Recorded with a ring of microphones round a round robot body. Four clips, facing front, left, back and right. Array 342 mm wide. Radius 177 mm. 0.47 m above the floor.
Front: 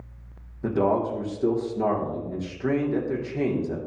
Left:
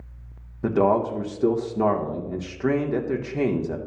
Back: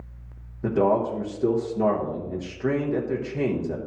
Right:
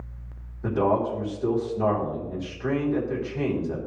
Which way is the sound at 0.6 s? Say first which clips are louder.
Left 3 dB, back 2 dB; 95° left.